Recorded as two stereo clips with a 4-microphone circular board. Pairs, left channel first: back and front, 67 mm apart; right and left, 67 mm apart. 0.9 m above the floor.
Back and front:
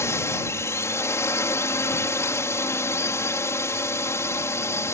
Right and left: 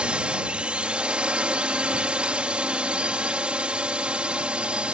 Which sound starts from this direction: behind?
A drone, at 0.0 s.